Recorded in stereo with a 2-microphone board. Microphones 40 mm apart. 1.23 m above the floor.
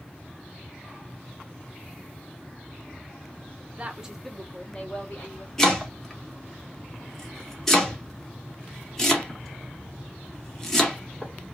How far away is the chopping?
About 0.8 m.